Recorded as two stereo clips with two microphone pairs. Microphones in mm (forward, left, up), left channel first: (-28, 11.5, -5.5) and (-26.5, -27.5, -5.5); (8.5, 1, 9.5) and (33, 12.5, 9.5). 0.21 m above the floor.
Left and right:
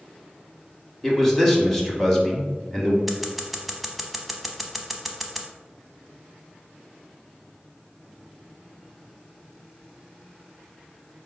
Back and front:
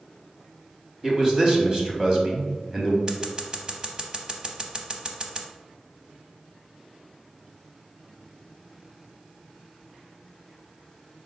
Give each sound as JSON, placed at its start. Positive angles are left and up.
{"t": 1.0, "sound": "a man speaking", "azimuth_deg": 15, "distance_m": 1.0}
{"t": 3.1, "sound": "scissors", "azimuth_deg": -5, "distance_m": 0.6}